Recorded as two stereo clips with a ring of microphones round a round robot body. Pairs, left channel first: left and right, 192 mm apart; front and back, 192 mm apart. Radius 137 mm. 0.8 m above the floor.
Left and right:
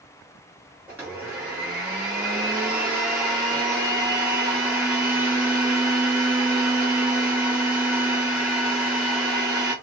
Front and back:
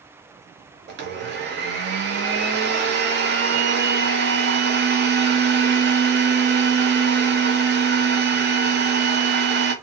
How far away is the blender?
About 0.6 m.